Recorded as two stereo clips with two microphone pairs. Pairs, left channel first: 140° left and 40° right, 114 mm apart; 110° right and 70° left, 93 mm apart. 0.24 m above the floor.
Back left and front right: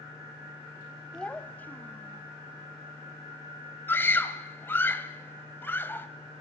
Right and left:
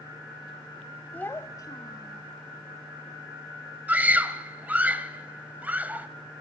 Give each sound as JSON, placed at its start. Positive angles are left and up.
{"t": 1.1, "sound": "a child speaking", "azimuth_deg": -155, "distance_m": 0.6}
{"t": 3.9, "sound": "a scream", "azimuth_deg": 115, "distance_m": 1.3}